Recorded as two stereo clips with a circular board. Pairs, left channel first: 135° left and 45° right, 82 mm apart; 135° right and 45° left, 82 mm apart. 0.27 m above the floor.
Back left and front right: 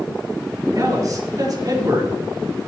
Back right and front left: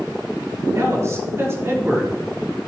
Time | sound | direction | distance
0.8 | a man speaking | 5° right | 5.5 m